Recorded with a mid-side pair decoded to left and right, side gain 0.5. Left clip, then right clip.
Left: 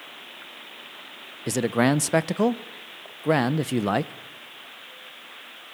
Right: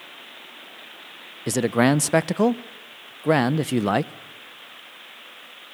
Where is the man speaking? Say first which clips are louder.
Right 2 dB; 15° right, 0.9 m.